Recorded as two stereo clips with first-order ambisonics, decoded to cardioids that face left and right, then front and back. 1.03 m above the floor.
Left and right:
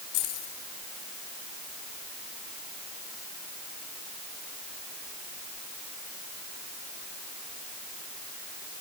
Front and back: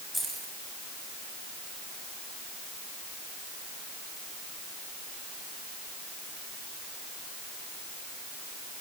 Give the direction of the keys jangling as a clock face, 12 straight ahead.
9 o'clock.